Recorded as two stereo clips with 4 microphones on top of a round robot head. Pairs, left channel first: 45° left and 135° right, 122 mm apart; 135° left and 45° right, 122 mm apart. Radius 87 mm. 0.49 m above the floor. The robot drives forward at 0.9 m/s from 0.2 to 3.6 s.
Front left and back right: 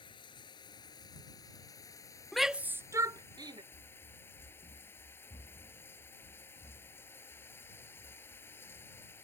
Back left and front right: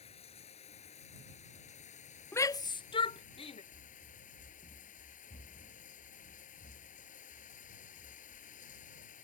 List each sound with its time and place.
0.0 s running water: 95° left; by 9.2 s 115° left
2.3 s a shout: 125° left; by 3.6 s 170° left
3.7 s running footsteps: 65° left; by 9.2 s 120° left